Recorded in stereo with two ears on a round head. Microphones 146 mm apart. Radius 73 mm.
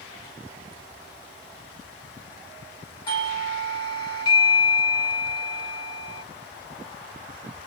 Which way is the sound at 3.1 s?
30° left (ahead or behind).